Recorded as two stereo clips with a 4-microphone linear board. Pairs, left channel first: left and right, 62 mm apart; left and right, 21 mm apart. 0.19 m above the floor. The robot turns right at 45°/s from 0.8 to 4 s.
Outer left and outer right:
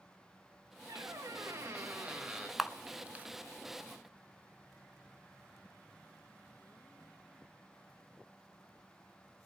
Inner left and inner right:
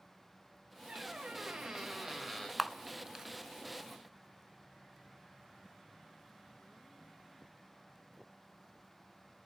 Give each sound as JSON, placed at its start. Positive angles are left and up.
{"t": 0.9, "sound": "a squeak", "azimuth_deg": -80, "distance_m": 1.9}
{"t": 2.6, "sound": "a camera shutter", "side_deg": 0, "distance_m": 0.6}